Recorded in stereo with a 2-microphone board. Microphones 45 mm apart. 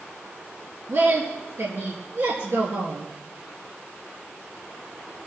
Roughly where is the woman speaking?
Right.